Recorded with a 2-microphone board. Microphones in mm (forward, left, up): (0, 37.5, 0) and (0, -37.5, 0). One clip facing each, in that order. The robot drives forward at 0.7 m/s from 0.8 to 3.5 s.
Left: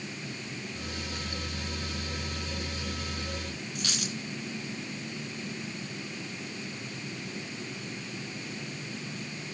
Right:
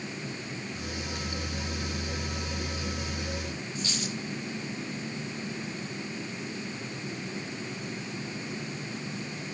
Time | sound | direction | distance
3.8 | a dropped coin | 75° left (ahead or behind) | 3 m